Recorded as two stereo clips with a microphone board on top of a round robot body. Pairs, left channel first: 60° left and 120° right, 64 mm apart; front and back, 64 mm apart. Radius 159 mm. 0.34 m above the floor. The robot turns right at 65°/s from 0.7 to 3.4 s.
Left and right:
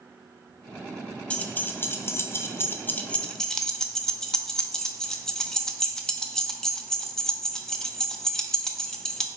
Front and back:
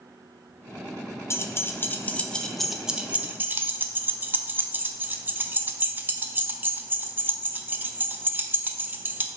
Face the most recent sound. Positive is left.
turn(degrees=135)